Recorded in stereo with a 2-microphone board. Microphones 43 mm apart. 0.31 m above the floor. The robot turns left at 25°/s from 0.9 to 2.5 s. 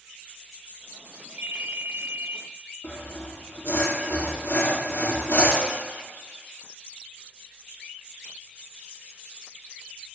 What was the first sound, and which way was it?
A ringtone, 45° right (ahead or behind).